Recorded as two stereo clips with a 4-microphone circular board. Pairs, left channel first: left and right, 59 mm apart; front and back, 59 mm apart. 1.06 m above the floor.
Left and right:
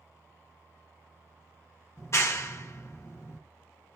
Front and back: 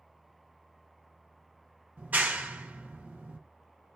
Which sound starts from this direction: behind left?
A clap, at 2.0 s.